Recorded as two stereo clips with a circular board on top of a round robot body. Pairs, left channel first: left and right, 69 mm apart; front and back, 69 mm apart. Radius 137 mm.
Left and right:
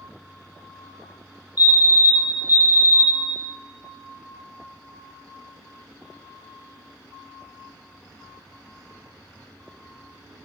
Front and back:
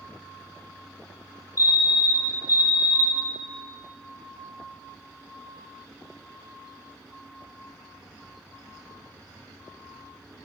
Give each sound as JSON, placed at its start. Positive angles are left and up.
{"t": 1.6, "sound": "a fire alarm", "azimuth_deg": -30, "distance_m": 2.5}